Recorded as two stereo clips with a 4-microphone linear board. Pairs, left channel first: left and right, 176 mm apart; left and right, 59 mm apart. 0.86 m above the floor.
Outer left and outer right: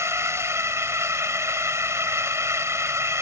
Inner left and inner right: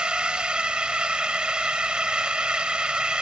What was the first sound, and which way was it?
A drone, 15° right (ahead or behind).